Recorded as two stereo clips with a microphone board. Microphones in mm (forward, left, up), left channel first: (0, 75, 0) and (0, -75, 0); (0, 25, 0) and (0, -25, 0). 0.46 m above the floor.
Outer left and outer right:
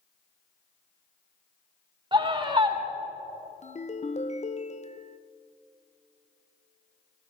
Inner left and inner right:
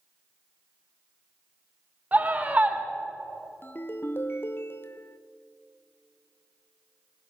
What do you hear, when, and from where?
2.1 s a scream: 30° right (ahead or behind), 1.7 m
3.6 s a ringtone: 50° left (ahead or behind), 0.6 m